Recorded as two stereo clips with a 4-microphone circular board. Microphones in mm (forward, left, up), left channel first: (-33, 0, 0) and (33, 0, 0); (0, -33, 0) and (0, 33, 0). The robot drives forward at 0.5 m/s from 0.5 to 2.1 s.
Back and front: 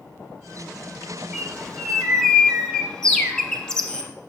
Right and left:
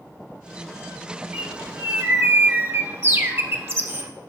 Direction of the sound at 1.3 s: 75° left.